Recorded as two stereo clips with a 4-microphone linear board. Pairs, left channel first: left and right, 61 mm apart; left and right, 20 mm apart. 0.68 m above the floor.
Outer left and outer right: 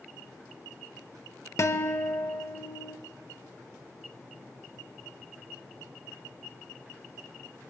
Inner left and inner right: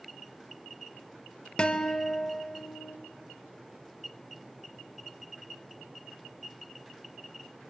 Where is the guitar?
50° left (ahead or behind), 0.8 m.